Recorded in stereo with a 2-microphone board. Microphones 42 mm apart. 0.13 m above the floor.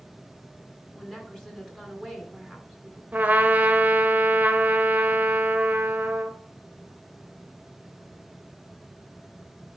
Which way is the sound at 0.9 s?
10° left (ahead or behind).